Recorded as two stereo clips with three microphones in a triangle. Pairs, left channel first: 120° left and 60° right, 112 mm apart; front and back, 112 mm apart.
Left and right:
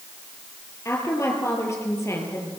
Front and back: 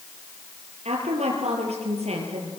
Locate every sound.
0.8 s a woman speaking: straight behind, 7 m